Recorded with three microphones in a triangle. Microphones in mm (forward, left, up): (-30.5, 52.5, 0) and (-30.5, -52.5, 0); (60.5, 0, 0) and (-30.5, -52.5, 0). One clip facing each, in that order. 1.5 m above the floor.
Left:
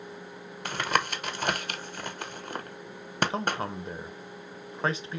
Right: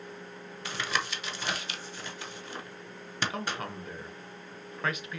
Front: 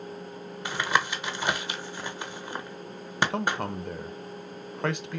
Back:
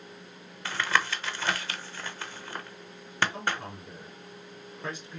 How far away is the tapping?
About 0.7 m.